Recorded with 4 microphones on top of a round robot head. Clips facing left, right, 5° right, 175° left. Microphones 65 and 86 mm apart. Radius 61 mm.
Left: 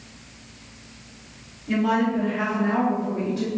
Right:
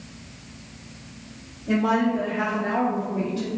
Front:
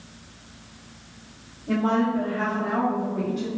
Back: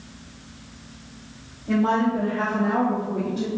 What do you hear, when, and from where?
1.7 s a woman speaking: 90° right, 0.7 m; by 3.5 s 135° left, 1.1 m